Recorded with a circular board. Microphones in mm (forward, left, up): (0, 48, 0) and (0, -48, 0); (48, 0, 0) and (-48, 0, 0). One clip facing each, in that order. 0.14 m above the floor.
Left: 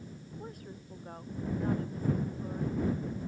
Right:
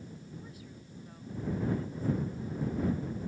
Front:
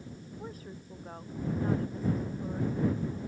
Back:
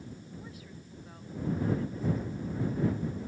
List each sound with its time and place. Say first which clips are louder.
0.4 s a woman speaking: left 4 dB, front 4 dB; 50° left